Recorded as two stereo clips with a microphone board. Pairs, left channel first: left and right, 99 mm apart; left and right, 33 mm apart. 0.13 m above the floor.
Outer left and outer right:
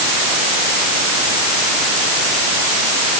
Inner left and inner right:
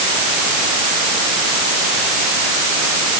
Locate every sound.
Only background noise.